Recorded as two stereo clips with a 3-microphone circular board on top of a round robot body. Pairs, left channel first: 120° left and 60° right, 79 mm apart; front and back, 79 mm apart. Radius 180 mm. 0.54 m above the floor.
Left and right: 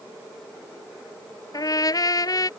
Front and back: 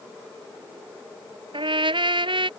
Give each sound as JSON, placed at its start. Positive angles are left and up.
{"t": 1.5, "sound": "a trumpet", "azimuth_deg": 165}